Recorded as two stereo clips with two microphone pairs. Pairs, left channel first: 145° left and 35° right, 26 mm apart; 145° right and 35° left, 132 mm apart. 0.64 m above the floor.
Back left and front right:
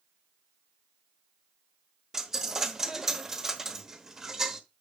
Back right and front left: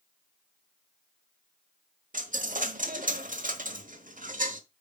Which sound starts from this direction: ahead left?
A dropped coin, at 2.1 s.